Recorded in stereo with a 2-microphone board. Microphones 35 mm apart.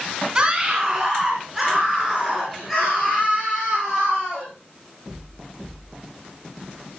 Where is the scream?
25° right (ahead or behind), 1.6 m; by 4.5 s 5° left (ahead or behind), 5 m.